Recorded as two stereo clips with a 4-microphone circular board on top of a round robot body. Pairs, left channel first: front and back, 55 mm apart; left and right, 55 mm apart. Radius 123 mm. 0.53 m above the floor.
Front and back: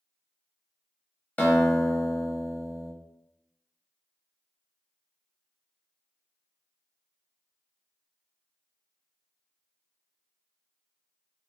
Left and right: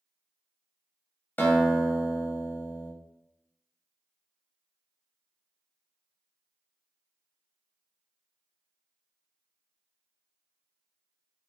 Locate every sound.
1.4 s a guitar: 50° left, 0.9 m